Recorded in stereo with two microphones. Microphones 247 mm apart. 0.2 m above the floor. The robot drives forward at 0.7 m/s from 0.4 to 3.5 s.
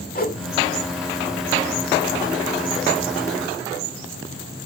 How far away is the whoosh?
About 1.0 m.